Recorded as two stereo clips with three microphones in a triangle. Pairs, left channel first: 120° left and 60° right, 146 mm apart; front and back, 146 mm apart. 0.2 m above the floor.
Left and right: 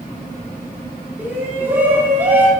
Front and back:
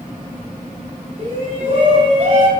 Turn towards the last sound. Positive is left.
turn(degrees=-140)